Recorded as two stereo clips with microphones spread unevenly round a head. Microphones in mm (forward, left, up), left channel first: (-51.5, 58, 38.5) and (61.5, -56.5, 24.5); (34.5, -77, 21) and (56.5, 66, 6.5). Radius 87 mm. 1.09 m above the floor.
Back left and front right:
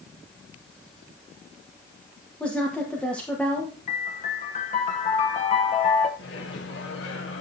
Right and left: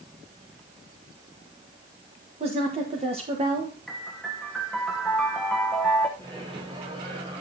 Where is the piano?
170° left, 1.0 m.